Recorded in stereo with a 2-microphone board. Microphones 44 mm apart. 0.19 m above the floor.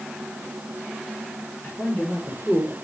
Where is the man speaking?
30° left (ahead or behind), 4.5 m.